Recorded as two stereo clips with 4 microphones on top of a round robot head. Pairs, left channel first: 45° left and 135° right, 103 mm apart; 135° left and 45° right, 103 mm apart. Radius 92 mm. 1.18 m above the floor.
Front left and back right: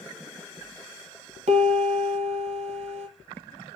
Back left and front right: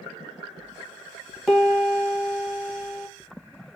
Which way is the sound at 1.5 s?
140° right.